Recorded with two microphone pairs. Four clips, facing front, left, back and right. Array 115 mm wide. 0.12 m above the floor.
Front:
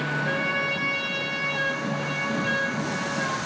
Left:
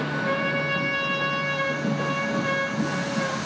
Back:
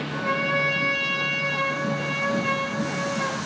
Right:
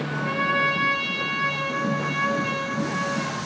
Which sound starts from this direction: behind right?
A trumpet, at 0.1 s.